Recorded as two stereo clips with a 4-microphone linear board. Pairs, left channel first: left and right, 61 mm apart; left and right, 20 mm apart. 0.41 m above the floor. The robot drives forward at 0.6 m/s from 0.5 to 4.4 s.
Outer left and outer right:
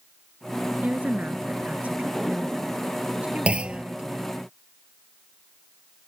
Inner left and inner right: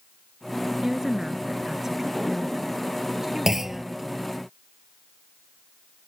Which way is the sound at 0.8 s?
25° right (ahead or behind).